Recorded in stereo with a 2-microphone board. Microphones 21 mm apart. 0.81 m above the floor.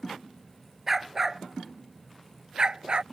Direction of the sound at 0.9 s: 15° right (ahead or behind).